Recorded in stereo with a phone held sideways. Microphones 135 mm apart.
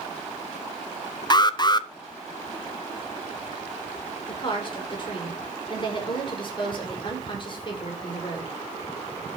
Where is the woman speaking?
40° left (ahead or behind), 5.5 m.